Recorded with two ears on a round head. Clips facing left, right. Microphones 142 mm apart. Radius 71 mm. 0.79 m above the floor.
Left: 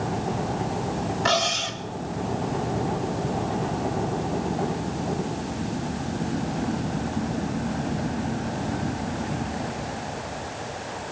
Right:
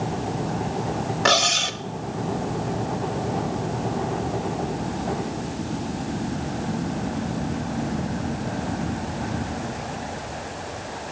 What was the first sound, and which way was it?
Cutlery clinking, 65° right (ahead or behind).